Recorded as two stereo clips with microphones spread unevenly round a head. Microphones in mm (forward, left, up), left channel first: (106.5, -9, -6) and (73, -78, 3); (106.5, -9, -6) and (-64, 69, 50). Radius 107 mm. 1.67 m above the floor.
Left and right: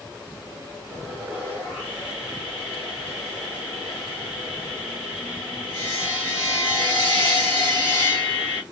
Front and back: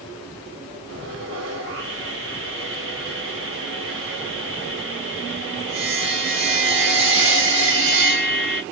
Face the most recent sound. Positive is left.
turn(degrees=150)